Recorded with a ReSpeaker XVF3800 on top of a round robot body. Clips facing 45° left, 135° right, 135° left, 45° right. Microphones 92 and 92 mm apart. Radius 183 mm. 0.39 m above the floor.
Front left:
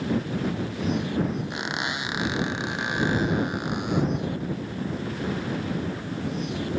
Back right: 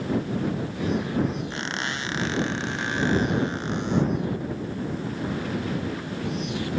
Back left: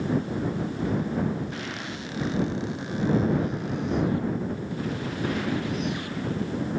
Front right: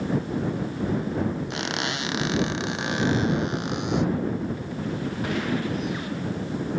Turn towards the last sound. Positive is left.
turn(degrees=-30)